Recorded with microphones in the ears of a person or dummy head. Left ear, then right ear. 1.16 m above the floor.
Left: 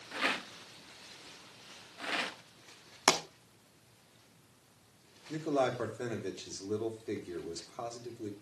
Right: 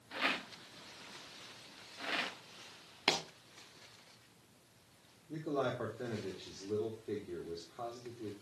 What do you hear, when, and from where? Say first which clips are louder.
0.1 s a rattle: left 2 dB; 10° left (ahead or behind), 0.6 m
3.1 s a pop: left 5 dB; 30° left (ahead or behind), 1.2 m
5.3 s a man speaking: left 5 dB; 55° left (ahead or behind), 3 m